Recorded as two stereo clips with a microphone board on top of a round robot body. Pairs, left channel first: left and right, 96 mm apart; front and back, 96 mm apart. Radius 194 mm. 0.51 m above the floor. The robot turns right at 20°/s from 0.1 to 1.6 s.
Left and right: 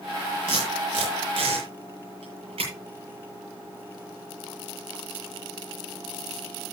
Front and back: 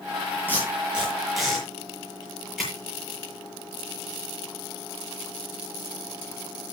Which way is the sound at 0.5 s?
110° right.